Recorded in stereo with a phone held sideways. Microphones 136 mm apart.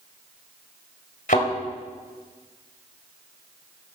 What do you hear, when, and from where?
1.3 s a thud: 75° left (ahead or behind), 2.5 m